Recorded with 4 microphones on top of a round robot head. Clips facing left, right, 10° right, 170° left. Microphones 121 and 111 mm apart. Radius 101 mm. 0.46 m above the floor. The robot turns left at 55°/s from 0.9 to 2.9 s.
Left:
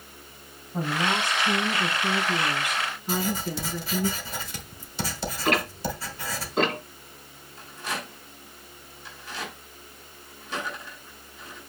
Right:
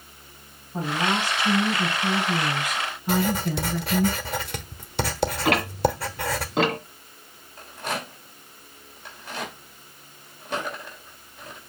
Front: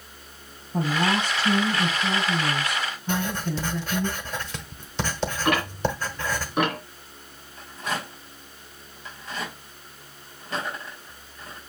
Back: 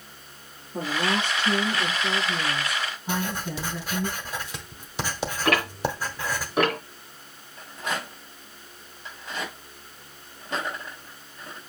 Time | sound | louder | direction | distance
0.7 | a woman speaking | right 1 dB, front 3 dB | straight ahead | 5 m
3.1 | writing | right 5 dB, front 2 dB | 110° right | 1.2 m
5.5 | ticking | right 2 dB, even | 105° right | 2.5 m
7.6 | a rattle | right 3 dB, even | 125° right | 3.5 m